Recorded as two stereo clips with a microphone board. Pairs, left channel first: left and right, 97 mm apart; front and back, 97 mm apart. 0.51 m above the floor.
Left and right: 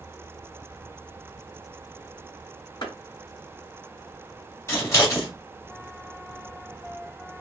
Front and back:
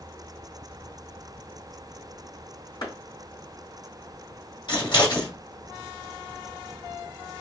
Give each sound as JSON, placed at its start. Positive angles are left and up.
{"t": 2.8, "sound": "a clap", "azimuth_deg": 40, "distance_m": 3.0}
{"t": 4.7, "sound": "scissors", "azimuth_deg": 30, "distance_m": 2.0}